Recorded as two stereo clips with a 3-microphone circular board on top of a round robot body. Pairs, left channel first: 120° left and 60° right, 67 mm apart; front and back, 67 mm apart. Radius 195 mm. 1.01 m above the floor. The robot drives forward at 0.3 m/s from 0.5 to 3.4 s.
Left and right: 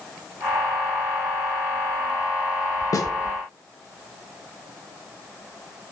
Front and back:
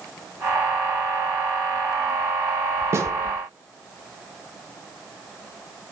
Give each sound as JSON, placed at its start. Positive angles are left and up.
{"t": 2.9, "sound": "a snare drum", "azimuth_deg": 140, "distance_m": 0.5}